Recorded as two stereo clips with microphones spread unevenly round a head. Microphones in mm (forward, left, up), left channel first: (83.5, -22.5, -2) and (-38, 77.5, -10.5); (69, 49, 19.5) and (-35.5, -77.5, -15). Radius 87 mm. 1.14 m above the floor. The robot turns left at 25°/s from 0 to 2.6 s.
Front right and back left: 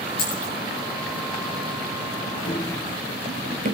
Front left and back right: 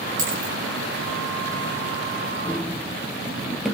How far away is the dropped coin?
About 8.5 m.